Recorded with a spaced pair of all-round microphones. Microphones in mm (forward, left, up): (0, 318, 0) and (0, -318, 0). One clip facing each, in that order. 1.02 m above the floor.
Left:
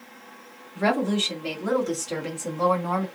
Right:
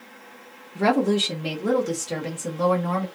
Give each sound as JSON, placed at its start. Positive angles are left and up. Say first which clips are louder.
{"t": 0.8, "sound": "a woman speaking", "louder": "right 3 dB", "side_deg": -65, "distance_m": 0.8}